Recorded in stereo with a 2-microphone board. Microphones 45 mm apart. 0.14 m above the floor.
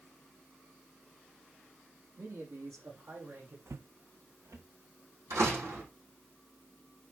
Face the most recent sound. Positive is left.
turn(degrees=-75)  # may be behind; listen again after turning